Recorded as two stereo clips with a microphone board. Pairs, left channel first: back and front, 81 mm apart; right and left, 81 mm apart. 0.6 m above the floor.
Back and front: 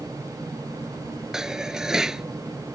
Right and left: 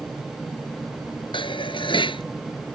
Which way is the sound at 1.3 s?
85° right.